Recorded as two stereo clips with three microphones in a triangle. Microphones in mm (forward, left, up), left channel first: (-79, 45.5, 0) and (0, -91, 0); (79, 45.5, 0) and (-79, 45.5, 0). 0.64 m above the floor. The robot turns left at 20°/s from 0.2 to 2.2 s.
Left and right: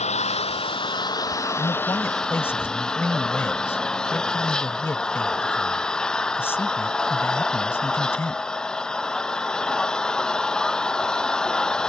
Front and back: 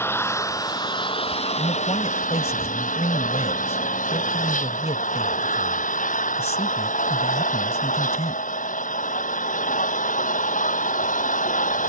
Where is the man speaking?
60° left; by 8.4 s 45° left.